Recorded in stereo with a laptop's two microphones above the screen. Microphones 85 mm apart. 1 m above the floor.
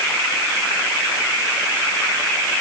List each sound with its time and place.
Only background noise.